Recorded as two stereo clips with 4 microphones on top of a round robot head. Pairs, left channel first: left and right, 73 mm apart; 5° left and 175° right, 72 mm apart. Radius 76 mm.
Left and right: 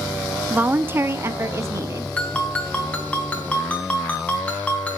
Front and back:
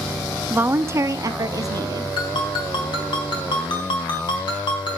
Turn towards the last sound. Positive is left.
turn(degrees=15)